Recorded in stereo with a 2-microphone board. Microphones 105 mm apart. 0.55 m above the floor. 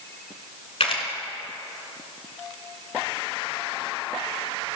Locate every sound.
0.8 s a camera shutter: 65° left (ahead or behind), 2 m